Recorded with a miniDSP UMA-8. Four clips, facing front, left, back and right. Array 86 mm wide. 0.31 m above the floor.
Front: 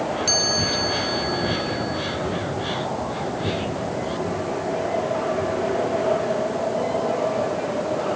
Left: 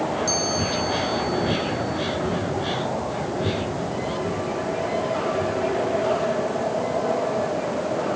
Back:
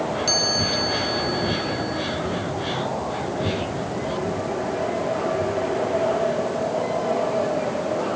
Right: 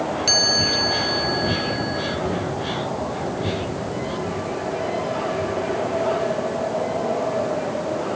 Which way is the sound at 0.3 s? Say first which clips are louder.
Right 1 dB, even; 85° right.